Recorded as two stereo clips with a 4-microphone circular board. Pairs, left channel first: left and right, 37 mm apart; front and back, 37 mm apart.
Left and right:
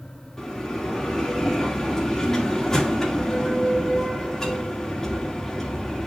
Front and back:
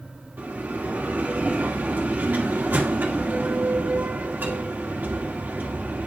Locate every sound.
0.4 s a bell: 160° left, 2 m